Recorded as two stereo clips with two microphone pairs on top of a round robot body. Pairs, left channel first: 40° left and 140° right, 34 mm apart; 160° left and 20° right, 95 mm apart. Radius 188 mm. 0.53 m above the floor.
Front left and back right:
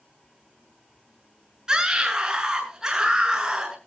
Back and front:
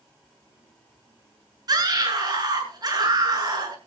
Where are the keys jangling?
No keys jangling in this recording.